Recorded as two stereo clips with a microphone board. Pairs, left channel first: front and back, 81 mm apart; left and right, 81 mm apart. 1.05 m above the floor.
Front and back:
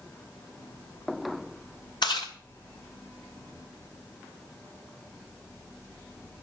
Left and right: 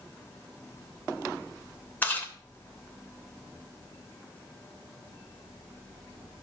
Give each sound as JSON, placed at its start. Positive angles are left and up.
{"t": 2.0, "sound": "chewing", "azimuth_deg": 25, "distance_m": 2.5}